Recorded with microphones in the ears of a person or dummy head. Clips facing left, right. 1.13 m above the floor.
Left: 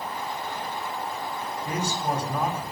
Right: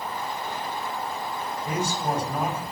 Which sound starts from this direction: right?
A man speaking, at 1.6 s.